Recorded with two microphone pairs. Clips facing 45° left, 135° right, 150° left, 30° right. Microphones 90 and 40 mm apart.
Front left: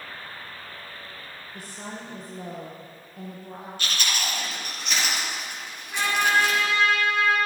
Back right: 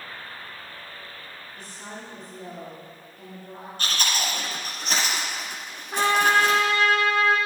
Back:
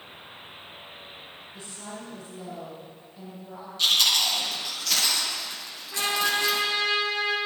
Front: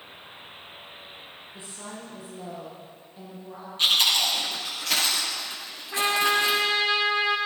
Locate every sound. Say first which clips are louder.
1.5 s a woman speaking: front left 3 dB, even; 40° left, 7 m
3.8 s chewing: back right 2 dB, front 1 dB; 85° right, 5 m
5.9 s a trumpet: back right 3 dB, front 3 dB; 85° right, 5.5 m